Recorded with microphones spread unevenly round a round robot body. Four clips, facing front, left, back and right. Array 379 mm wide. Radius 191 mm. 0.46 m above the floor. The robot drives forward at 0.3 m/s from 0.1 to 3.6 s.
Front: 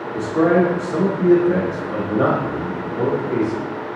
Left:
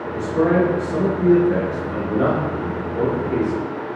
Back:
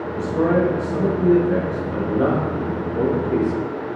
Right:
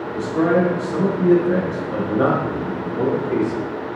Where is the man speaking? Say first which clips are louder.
Even, front 3 dB; 5° right, 1.1 m; by 3.7 s 175° right, 0.9 m.